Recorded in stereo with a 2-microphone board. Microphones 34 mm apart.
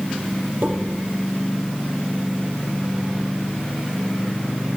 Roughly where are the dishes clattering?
Right.